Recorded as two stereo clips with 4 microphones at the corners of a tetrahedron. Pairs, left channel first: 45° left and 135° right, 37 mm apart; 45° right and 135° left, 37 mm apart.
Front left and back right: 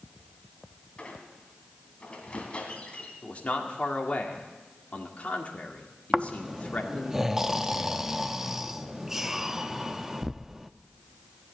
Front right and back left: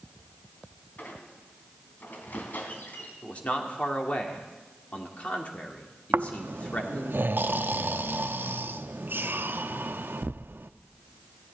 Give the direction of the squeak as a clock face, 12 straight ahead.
12 o'clock.